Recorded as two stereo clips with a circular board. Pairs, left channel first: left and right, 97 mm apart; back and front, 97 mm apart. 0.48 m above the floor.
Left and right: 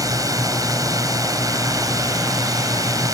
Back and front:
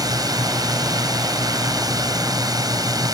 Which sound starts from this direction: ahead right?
A drone, at 0.0 s.